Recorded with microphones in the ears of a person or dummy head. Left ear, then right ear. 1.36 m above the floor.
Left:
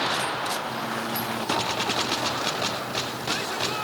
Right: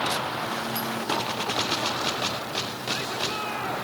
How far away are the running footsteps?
No running footsteps in this recording.